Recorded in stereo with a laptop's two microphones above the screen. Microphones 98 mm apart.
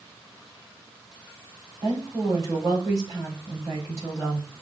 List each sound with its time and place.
1.8 s a woman speaking: 35° right (ahead or behind), 4 m